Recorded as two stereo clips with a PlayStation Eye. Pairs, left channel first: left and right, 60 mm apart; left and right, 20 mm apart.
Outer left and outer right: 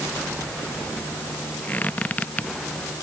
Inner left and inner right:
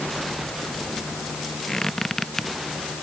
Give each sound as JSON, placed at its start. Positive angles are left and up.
{"t": 1.7, "sound": "a squeak", "side_deg": 25}